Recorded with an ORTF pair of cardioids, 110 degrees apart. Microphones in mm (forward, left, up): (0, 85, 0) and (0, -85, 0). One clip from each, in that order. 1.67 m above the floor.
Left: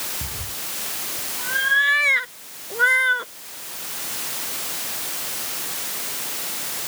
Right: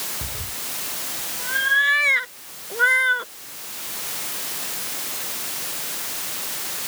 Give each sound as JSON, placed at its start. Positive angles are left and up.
{"t": 0.2, "sound": "a cat meowing", "azimuth_deg": 0}